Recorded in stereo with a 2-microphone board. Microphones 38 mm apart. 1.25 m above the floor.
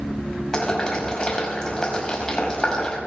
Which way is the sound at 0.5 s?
20° left (ahead or behind).